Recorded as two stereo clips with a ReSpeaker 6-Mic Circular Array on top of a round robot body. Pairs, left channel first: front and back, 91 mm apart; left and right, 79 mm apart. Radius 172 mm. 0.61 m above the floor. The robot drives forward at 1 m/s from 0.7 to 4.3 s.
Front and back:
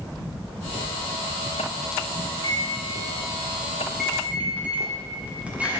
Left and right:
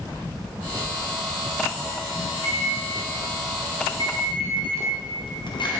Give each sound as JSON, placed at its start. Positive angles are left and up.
{"t": 2.3, "sound": "a microwave", "azimuth_deg": 45, "distance_m": 2.0}